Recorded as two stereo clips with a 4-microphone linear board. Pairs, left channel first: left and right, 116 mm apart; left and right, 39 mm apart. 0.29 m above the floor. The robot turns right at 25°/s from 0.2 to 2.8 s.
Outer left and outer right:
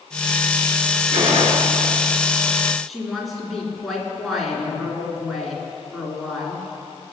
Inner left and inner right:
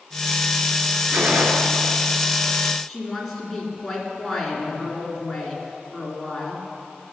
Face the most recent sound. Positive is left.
turn(degrees=0)  # may be behind; listen again after turning